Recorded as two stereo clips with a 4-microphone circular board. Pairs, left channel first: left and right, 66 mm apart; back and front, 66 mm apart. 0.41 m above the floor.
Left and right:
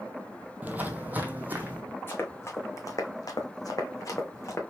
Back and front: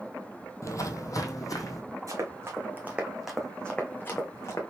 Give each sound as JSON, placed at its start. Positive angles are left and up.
{"t": 0.6, "sound": "footsteps", "azimuth_deg": -150, "distance_m": 0.8}
{"t": 2.1, "sound": "running footsteps", "azimuth_deg": 35, "distance_m": 1.3}